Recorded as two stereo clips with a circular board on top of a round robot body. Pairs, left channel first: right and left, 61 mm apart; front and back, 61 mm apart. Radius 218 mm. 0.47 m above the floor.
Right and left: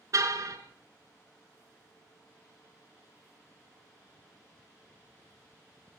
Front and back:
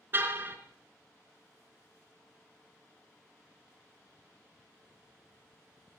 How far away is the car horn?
About 3.5 m.